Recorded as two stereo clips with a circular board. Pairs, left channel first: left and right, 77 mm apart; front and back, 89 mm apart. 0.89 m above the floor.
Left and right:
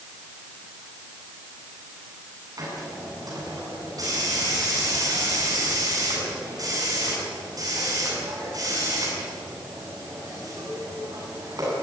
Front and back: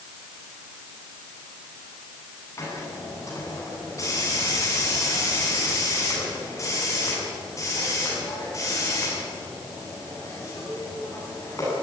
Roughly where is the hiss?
Ahead right.